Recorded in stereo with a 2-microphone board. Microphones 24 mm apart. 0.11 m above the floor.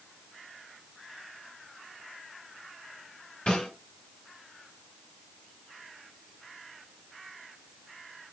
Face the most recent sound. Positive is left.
turn(degrees=45)  # may be behind; listen again after turning